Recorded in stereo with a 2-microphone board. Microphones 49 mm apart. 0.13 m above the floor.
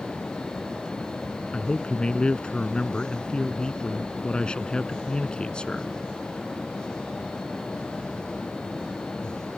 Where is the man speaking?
20° left (ahead or behind).